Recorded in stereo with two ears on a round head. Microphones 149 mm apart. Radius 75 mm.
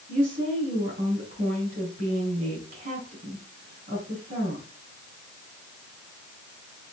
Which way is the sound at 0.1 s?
45° right (ahead or behind).